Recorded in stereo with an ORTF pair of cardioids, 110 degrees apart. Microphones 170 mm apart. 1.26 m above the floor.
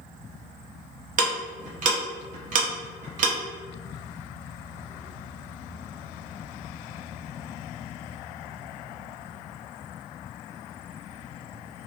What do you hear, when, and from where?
1.2 s ticking: 50° right, 0.8 m